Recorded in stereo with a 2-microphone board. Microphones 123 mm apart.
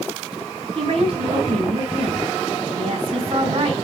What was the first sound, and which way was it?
A woman speaking, 50° right (ahead or behind).